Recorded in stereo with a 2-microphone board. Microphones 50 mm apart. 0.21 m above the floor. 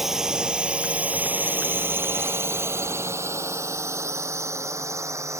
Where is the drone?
5° right (ahead or behind); by 5.4 s 80° right.